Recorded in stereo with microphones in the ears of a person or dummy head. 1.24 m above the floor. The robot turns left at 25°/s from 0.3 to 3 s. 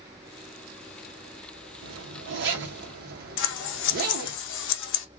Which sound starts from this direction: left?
Scissors, at 3.4 s.